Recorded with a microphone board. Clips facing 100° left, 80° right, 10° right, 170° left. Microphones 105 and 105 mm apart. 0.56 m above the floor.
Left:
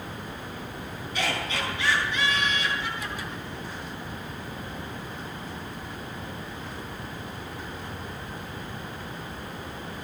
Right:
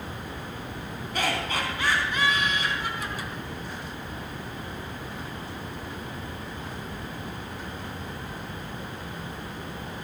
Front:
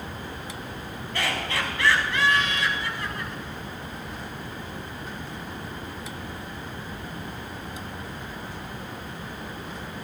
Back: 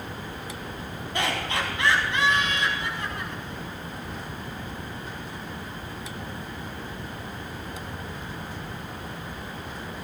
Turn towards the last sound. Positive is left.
turn(degrees=-120)